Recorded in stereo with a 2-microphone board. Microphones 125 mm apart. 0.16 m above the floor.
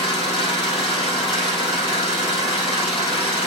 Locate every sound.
0.0 s an engine running: 45° left (ahead or behind), 4.5 m